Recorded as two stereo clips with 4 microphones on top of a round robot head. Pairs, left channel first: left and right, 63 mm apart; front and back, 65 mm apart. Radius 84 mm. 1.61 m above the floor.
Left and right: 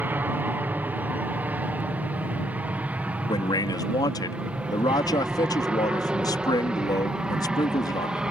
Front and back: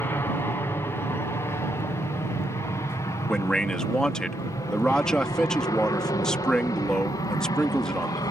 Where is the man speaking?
80° left.